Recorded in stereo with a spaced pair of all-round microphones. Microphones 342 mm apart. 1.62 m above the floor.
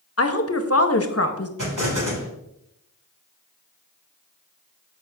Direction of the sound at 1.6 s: 60° right (ahead or behind).